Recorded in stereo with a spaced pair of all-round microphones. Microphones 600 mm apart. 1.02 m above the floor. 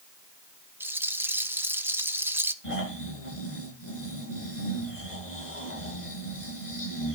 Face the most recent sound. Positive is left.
turn(degrees=55)  # may be behind; listen again after turning